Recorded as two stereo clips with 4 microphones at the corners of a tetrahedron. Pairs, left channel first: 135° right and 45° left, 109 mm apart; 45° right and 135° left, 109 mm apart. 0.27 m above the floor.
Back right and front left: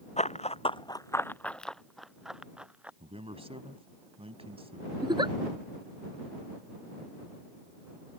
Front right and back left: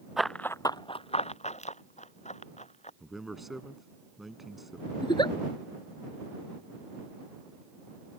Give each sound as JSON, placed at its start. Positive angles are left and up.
{"t": 0.2, "sound": "running footsteps", "azimuth_deg": -135}
{"t": 3.0, "sound": "a man speaking", "azimuth_deg": 50}
{"t": 5.0, "sound": "a giggle", "azimuth_deg": 0}